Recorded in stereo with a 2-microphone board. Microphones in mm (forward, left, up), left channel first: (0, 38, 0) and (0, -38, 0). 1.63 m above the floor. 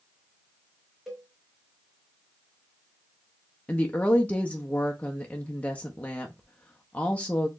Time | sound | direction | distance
1.1 | a cowbell | 5° right (ahead or behind) | 2 m
3.7 | a woman speaking | 20° left (ahead or behind) | 0.6 m